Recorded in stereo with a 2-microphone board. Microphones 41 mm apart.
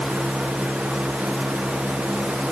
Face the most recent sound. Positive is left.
No sound to turn to.